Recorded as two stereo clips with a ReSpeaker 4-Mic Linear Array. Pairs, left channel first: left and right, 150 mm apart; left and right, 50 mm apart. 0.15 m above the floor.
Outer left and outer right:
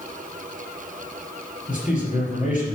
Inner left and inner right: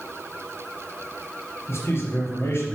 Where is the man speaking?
60° left (ahead or behind), 3.5 m.